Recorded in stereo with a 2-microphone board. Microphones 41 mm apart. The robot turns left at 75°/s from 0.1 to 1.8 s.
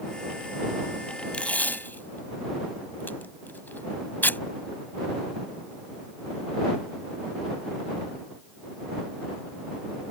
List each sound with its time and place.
1.3 s tape being pulled: 30° left (ahead or behind); by 4.4 s 55° left (ahead or behind)